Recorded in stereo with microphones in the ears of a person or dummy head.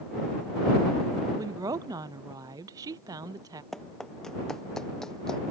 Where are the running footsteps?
Centre (ahead or behind); by 5.4 s 5° left (ahead or behind).